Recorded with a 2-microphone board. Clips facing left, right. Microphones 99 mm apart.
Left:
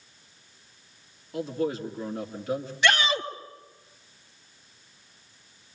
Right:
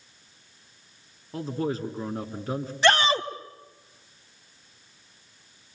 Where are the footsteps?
I don't hear footsteps.